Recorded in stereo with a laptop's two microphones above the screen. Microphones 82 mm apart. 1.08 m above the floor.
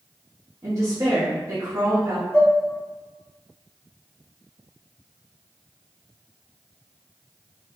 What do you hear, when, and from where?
0.6 s a woman speaking: 40° right (ahead or behind), 1.6 m
2.3 s dishes clattering: 15° left (ahead or behind), 2 m